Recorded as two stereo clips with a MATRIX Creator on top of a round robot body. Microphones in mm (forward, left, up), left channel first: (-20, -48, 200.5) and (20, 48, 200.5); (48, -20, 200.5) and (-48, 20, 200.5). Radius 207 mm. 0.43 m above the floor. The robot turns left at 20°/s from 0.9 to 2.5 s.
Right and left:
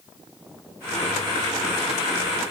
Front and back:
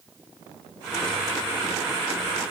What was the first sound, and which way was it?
Only background noise.